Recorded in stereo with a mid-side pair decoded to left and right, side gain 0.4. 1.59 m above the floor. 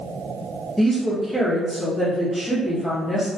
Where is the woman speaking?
10° left, 0.8 m.